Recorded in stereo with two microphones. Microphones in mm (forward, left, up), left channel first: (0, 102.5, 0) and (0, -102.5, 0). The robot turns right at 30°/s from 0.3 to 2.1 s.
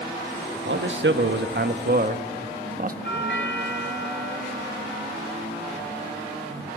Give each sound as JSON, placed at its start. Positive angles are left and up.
{"t": 0.7, "sound": "a man speaking", "azimuth_deg": -90, "distance_m": 1.4}
{"t": 3.0, "sound": "a doorbell", "side_deg": 70, "distance_m": 4.5}